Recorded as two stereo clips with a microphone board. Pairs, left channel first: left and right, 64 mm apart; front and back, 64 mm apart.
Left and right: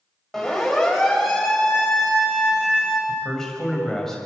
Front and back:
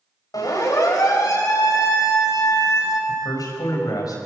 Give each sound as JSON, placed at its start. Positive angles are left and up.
{"t": 0.3, "sound": "a siren", "azimuth_deg": 5, "distance_m": 6.5}
{"t": 3.1, "sound": "a man speaking", "azimuth_deg": 5, "distance_m": 6.5}